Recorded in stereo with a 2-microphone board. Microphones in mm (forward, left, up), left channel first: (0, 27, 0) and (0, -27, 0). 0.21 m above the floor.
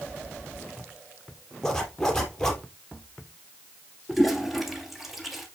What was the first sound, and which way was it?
A zipper, 10° left (ahead or behind).